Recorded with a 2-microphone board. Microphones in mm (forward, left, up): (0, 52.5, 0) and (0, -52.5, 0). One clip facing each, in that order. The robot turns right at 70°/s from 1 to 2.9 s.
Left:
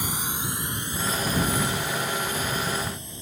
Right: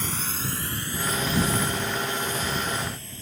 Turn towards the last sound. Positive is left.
turn(degrees=20)  # may be behind; listen again after turning